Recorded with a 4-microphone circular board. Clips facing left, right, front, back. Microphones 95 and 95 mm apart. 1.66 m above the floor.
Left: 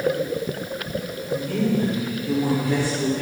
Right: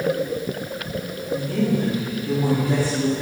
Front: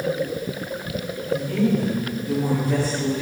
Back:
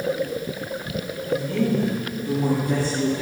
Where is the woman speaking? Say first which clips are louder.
Right 1 dB, front 1 dB; 135° right, 4 m; by 3.2 s 140° right, 5 m.